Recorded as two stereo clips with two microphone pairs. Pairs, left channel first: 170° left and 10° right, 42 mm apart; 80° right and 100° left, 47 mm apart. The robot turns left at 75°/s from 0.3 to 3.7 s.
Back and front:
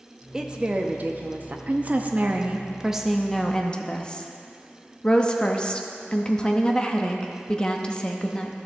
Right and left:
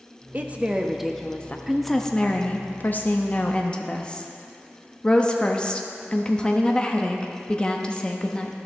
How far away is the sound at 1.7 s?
About 0.6 m.